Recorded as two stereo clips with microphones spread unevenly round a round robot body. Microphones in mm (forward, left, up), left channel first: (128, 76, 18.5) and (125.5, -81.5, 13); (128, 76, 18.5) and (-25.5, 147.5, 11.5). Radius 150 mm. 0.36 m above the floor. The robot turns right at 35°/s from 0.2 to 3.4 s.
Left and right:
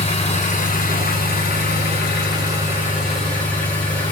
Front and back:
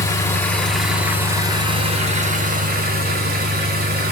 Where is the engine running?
45° left, 2.0 m; by 4.1 s 155° left, 2.0 m.